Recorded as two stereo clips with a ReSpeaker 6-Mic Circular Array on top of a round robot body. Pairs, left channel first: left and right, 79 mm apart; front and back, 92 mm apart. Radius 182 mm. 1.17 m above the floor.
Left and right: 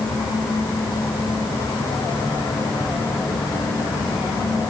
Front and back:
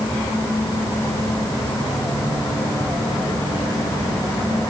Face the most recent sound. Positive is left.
No sound to turn to.